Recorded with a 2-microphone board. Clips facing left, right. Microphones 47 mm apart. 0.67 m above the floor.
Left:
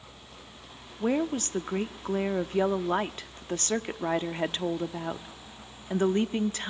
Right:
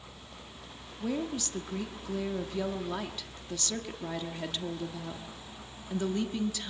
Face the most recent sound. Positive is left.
turn(degrees=40)  # may be behind; listen again after turning